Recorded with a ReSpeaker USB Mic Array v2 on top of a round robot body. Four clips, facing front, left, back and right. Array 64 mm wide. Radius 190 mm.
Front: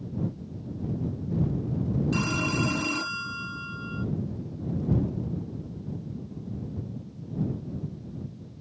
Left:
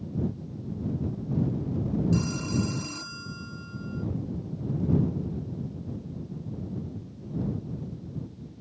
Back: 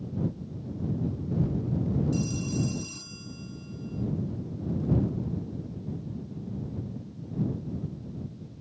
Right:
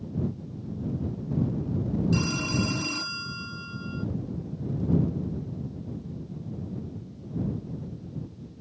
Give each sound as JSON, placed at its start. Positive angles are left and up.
{"t": 2.1, "sound": "a phone ringing", "azimuth_deg": -15}